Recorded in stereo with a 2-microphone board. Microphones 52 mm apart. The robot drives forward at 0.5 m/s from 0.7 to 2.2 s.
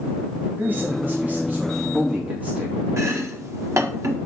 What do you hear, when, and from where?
0.6 s a man speaking: 40° right (ahead or behind), 2.5 m; by 2.8 s 30° right (ahead or behind), 3 m
3.0 s chopping: 70° right (ahead or behind), 1.5 m